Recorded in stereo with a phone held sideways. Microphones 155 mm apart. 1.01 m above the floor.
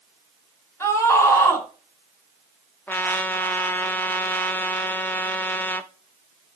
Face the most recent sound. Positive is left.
turn(degrees=10)  # may be behind; listen again after turning